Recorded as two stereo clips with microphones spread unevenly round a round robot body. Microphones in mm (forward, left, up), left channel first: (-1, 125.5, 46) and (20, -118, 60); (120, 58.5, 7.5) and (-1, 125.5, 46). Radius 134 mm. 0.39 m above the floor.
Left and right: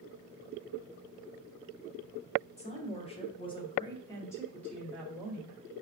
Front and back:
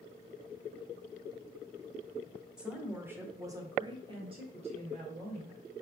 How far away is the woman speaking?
About 1.4 m.